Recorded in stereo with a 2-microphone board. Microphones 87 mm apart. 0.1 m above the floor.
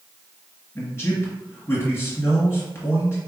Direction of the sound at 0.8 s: 30° left (ahead or behind).